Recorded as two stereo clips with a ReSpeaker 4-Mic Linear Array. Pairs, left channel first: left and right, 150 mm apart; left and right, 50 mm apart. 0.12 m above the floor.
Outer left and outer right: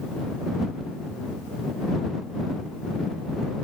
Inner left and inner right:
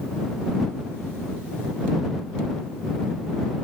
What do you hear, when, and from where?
Only background noise.